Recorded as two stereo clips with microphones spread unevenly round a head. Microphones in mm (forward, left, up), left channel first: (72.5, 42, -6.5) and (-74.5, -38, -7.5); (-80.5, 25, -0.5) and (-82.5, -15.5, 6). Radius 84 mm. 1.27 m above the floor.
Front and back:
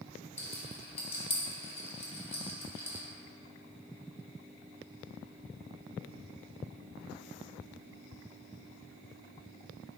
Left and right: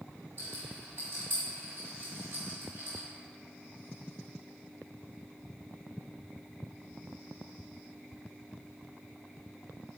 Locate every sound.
0.4 s a rattle: 25° right, 1.3 m